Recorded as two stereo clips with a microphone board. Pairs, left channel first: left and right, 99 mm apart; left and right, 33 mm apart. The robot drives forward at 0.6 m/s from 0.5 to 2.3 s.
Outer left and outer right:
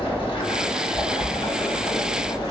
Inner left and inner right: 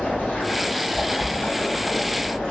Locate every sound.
0.0 s running water: 60° left (ahead or behind), 1.7 m; by 2.5 s 40° left (ahead or behind), 2.5 m